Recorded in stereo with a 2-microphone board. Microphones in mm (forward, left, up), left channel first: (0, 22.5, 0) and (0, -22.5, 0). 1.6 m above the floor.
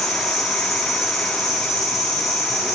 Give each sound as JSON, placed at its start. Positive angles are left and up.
{"t": 0.0, "sound": "an insect", "side_deg": 0, "distance_m": 4.5}